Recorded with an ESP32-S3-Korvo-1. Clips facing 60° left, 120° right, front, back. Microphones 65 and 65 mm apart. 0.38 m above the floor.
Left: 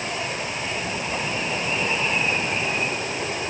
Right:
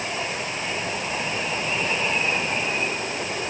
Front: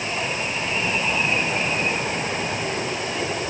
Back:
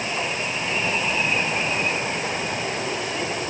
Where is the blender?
No blender in this recording.